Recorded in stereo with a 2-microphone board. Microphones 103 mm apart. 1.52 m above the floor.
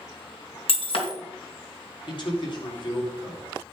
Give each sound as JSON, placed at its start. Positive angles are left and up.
{"t": 0.7, "sound": "breaking glass", "side_deg": 60, "distance_m": 3.0}
{"t": 2.1, "sound": "a man speaking", "side_deg": 50, "distance_m": 4.0}